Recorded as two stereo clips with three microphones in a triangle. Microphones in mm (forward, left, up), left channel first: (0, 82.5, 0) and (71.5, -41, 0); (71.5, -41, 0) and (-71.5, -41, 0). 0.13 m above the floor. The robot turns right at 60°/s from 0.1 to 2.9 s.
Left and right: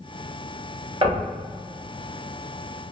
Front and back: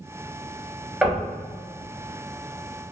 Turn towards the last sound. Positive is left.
turn(degrees=15)